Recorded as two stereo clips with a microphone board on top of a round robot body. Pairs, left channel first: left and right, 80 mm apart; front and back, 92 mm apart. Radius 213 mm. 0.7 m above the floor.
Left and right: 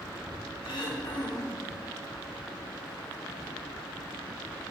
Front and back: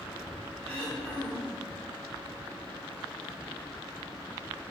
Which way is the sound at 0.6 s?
75° left.